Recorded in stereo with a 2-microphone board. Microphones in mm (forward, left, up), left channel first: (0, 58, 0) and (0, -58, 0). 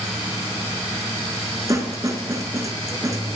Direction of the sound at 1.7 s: 30° right (ahead or behind).